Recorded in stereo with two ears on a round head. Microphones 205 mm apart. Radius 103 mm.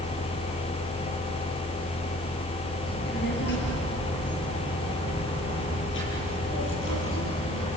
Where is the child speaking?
45° left (ahead or behind), 6.5 m; by 7.7 s 60° left (ahead or behind), 10 m.